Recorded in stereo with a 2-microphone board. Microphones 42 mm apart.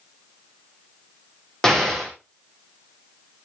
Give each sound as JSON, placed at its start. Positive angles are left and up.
{"t": 1.6, "sound": "an explosion", "side_deg": 15, "distance_m": 3.0}